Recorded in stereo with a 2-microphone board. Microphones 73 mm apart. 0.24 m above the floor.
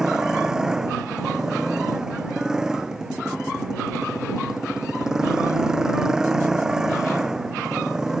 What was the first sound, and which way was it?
A motorcycle, 10° right (ahead or behind).